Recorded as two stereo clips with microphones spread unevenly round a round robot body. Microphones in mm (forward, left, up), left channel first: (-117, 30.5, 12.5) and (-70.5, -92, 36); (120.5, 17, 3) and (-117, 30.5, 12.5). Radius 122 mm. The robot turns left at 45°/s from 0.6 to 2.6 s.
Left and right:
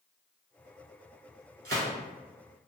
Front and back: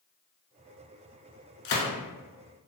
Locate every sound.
1.6 s a gunshot: 25° right, 0.7 m; by 1.9 s 35° right, 0.7 m